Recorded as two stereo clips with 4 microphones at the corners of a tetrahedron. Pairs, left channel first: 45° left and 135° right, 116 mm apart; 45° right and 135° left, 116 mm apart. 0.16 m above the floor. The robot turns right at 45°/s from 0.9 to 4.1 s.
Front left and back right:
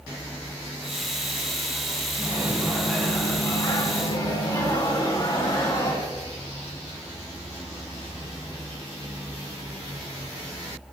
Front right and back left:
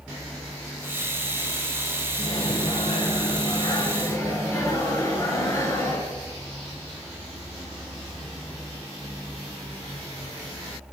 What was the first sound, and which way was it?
A microwave, 80° right.